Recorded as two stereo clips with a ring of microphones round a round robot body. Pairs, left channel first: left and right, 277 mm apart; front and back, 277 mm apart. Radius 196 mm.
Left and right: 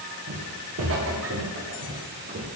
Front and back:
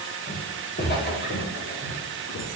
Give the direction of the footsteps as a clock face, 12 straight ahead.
2 o'clock.